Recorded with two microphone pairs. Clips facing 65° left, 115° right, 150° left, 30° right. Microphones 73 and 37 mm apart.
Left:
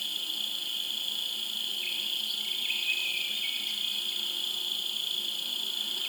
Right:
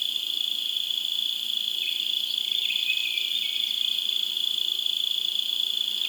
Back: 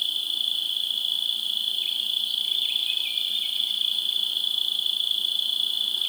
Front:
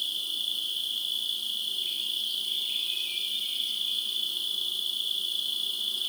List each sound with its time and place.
0.0 s an insect: 105° left, 1.0 m